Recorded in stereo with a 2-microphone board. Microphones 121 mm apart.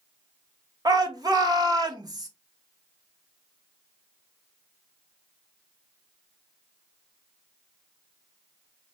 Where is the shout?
35° right (ahead or behind), 0.9 m.